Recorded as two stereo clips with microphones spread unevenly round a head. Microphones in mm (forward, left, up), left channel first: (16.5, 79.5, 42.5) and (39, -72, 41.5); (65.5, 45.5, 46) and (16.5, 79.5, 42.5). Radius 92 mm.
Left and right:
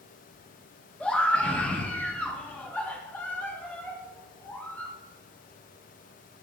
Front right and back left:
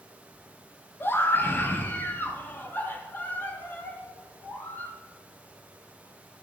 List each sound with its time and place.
1.0 s a scream: 15° left, 3 m; by 4.9 s 20° left, 6 m